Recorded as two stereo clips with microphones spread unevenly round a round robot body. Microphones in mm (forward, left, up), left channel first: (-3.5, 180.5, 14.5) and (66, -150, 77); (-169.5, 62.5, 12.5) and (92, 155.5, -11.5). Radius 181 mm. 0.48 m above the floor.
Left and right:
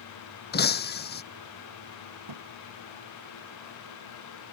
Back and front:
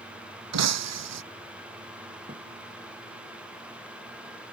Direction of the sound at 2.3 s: 50° right.